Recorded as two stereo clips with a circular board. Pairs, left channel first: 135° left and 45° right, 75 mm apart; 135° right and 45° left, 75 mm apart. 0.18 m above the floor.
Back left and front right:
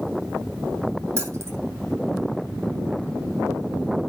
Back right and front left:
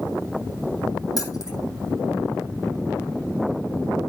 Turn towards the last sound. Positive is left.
turn(degrees=-95)